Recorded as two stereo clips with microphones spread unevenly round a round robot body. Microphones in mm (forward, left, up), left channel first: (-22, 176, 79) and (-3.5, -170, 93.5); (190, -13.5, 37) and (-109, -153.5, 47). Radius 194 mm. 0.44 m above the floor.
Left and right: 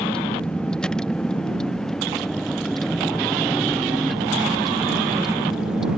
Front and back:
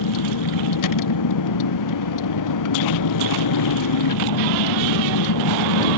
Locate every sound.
0.0 s a vehicle: 5° left; by 6.0 s straight ahead